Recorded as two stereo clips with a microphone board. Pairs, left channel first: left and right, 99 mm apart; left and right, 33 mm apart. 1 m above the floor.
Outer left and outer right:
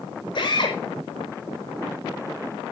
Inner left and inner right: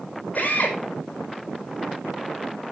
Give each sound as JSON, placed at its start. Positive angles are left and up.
{"t": 0.3, "sound": "a drill", "side_deg": 55, "distance_m": 5.5}